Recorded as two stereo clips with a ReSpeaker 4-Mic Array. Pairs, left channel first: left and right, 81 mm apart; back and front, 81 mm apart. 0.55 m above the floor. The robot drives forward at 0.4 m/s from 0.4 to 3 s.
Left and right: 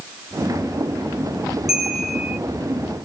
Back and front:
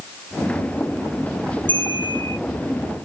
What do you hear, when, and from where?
1.7 s a bell: straight ahead, 2.0 m